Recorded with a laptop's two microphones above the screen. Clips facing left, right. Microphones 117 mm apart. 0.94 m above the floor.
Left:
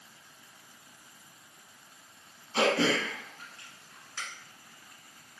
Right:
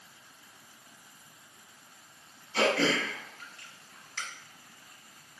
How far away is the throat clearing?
About 1.4 m.